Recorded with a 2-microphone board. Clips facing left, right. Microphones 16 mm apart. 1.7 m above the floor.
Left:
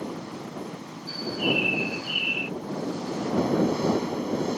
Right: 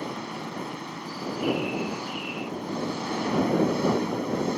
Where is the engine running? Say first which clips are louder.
Right 1 dB; 60° right (ahead or behind).